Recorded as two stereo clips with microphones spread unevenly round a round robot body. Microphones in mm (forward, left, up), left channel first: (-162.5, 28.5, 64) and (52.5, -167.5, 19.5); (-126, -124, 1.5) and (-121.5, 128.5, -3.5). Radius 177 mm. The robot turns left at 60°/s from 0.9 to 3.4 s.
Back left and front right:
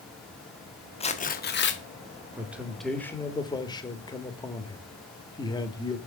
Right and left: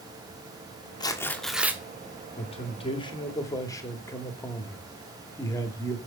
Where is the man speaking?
85° right, 1.0 m; by 6.0 s 145° right, 1.0 m.